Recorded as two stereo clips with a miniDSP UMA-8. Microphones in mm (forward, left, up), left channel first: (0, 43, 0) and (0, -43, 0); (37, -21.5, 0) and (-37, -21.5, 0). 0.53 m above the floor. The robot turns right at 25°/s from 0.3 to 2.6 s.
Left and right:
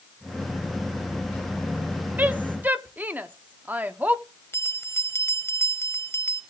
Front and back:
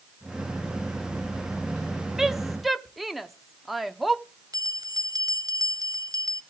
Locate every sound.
2.2 s a woman speaking: 105° right, 0.7 m; by 4.2 s 95° right, 0.7 m
4.5 s a bell: 150° left, 0.6 m